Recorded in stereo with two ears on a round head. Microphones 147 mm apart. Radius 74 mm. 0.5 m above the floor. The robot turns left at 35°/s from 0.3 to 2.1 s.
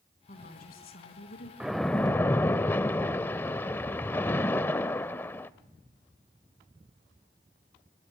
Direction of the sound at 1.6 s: 5° right (ahead or behind).